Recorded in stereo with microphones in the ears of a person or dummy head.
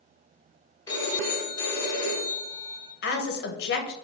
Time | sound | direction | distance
0.9 | a phone ringing | 15° left (ahead or behind) | 0.9 m
3.0 | a woman speaking | 45° left (ahead or behind) | 0.6 m